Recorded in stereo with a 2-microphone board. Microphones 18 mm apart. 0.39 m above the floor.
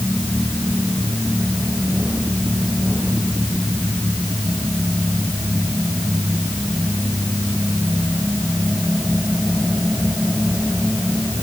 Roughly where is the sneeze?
No sneeze in this recording.